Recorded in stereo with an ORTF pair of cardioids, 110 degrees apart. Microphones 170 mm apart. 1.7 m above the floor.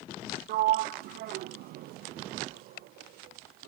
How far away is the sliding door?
About 0.5 m.